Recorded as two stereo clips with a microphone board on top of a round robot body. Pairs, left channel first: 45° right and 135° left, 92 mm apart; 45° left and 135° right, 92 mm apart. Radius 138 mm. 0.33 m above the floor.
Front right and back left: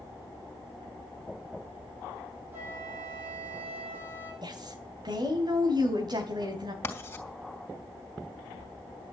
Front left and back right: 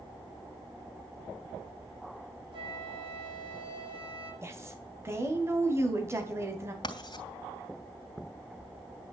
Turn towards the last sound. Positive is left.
turn(degrees=15)